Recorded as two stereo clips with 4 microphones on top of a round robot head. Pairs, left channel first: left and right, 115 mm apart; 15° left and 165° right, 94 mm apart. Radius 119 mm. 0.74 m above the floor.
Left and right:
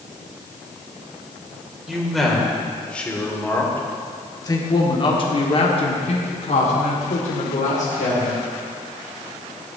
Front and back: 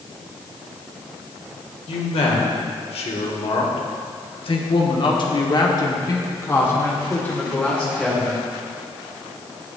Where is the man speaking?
Straight ahead, 3 m; by 8.4 s 95° left, 3 m.